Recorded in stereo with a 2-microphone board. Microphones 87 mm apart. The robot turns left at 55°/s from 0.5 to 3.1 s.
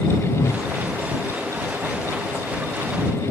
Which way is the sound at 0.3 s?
40° left (ahead or behind).